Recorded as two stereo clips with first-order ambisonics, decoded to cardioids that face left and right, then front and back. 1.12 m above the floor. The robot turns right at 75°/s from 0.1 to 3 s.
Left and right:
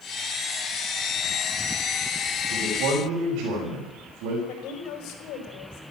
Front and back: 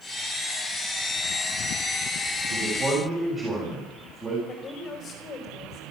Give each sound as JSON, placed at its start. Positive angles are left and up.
{"t": 2.5, "sound": "a man speaking", "azimuth_deg": -140, "distance_m": 6.5}
{"t": 4.5, "sound": "a woman speaking", "azimuth_deg": 65, "distance_m": 5.0}